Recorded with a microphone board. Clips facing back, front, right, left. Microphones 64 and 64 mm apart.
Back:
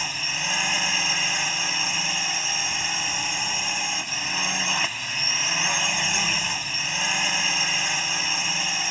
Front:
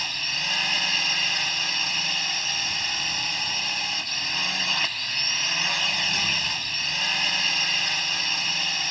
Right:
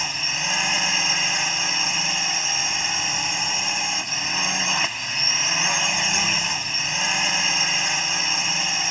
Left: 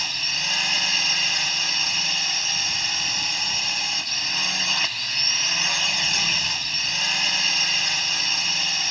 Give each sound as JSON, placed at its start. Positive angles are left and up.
{"t": 0.0, "sound": "a drone", "azimuth_deg": -125}